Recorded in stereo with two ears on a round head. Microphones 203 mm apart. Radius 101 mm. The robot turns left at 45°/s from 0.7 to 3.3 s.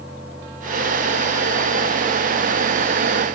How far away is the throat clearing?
No throat clearing in this recording.